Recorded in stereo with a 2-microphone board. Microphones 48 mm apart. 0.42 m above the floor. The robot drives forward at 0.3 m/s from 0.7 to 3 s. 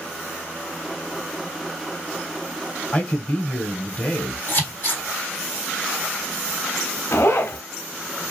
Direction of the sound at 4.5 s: 40° left (ahead or behind).